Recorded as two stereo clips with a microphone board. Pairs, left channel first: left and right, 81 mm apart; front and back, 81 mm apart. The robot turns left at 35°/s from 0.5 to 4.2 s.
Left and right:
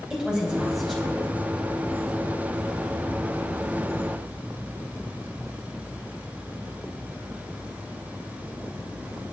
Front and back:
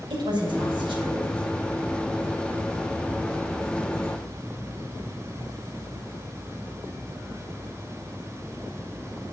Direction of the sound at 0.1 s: 170° right.